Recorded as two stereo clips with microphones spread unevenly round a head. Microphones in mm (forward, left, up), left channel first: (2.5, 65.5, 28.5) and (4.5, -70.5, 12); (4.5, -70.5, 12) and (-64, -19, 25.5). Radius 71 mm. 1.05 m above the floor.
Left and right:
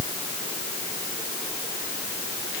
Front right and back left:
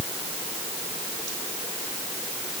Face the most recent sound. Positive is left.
No sound to turn to.